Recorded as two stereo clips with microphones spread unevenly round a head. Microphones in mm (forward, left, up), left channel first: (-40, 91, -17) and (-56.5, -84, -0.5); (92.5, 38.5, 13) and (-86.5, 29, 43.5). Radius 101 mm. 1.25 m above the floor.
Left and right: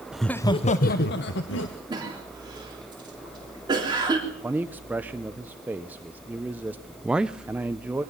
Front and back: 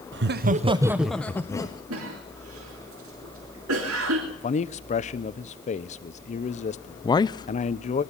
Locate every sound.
0.1 s laughter: 175° left, 0.9 m; by 1.8 s 70° left, 1.7 m
1.9 s a cough: 160° right, 3.5 m
4.3 s a man speaking: 10° right, 0.8 m
7.0 s a man speaking: 5° right, 0.6 m